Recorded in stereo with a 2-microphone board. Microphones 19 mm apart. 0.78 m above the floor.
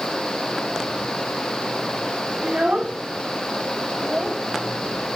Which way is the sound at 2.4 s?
70° right (ahead or behind).